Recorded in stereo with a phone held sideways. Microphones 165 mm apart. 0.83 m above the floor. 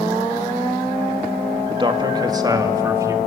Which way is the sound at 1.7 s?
30° right (ahead or behind).